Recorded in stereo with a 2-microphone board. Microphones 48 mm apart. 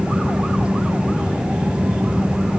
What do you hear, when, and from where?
Only background noise.